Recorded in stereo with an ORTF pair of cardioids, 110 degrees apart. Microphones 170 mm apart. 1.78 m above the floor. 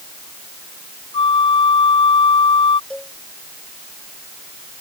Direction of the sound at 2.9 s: 5° left.